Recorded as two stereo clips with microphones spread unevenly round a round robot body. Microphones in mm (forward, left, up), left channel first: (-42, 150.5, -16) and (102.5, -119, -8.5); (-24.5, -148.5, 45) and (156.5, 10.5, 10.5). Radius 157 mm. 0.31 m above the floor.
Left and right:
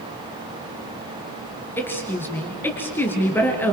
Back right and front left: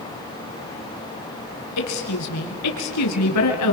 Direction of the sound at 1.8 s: 160° right.